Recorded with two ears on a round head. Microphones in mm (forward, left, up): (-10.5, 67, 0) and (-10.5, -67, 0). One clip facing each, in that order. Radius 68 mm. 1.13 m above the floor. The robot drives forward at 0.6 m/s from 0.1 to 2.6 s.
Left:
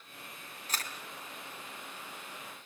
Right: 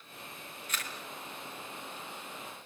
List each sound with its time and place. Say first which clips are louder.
0.7 s a camera shutter: left 1 dB; 30° left (ahead or behind), 3 m